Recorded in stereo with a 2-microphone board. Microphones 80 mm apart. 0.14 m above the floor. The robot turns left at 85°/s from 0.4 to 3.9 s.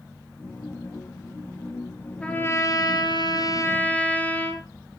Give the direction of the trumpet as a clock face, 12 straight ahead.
6 o'clock.